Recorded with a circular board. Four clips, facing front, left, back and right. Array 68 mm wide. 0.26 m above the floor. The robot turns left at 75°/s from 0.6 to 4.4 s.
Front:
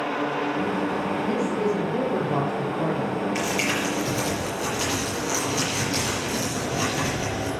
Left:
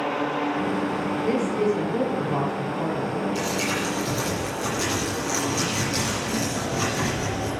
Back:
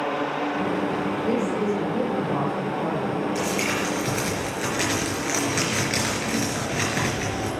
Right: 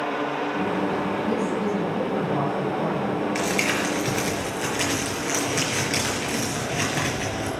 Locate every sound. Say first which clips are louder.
1.2 s a man speaking: left 2 dB, back 1 dB; 90° left, 5 m; by 3.2 s 55° right, 5 m
3.4 s crumpling: right 2 dB, even; 65° right, 4.5 m; by 7.5 s 145° right, 4.5 m